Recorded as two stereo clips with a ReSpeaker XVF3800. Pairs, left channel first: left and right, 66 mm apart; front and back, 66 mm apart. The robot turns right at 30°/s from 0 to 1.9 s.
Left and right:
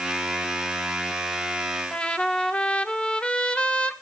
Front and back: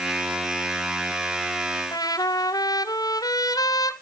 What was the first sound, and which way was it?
A trumpet, 15° left.